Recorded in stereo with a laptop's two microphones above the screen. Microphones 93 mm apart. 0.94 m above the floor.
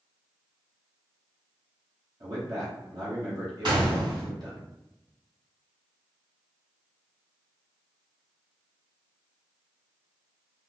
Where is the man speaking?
50° right (ahead or behind), 1.3 m.